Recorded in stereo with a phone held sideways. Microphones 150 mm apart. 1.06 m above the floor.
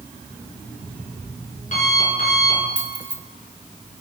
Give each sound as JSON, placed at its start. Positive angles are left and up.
{"t": 0.3, "sound": "an alarm clock", "side_deg": 55, "distance_m": 6.5}
{"t": 2.8, "sound": "keys jangling", "side_deg": -10, "distance_m": 1.3}